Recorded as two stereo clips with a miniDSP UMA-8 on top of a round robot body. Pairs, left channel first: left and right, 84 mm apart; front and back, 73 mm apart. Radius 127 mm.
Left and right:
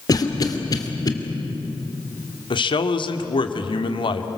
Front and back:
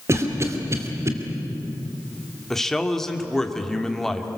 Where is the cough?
130° left, 2.5 m.